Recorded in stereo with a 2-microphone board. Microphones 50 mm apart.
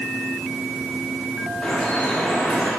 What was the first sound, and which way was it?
Dripping, 20° left (ahead or behind).